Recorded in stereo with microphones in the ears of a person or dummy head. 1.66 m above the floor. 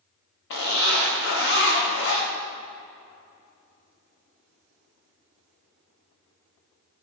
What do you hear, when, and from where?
0.5 s a zipper: 65° left (ahead or behind), 1.0 m